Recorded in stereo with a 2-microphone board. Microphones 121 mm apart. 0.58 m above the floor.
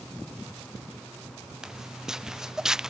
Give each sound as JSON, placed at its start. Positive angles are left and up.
{"t": 1.6, "sound": "footsteps", "side_deg": -5}